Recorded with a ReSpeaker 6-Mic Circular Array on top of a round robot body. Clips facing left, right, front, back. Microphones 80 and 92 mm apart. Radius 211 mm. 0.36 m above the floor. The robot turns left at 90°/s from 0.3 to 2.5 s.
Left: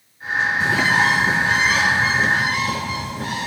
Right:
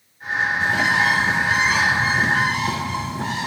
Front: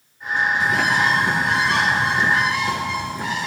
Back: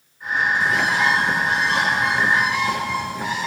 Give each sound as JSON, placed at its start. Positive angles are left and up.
{"t": 0.6, "sound": "a bird", "azimuth_deg": 100, "distance_m": 4.0}